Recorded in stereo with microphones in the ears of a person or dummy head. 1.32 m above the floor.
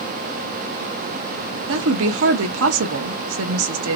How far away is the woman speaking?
About 0.8 m.